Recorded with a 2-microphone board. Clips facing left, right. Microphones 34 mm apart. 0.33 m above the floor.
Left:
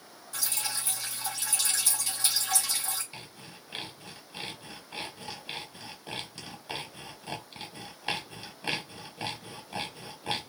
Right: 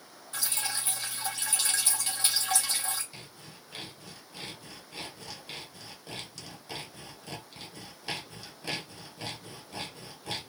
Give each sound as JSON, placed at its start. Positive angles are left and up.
{"t": 0.3, "sound": "dripping", "side_deg": -40, "distance_m": 1.4}
{"t": 3.1, "sound": "sawing", "side_deg": 30, "distance_m": 0.9}